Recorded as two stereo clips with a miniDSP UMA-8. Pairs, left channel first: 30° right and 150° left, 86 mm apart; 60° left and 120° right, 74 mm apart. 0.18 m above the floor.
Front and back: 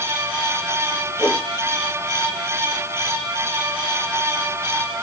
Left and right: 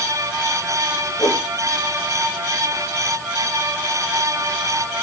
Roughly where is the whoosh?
Left.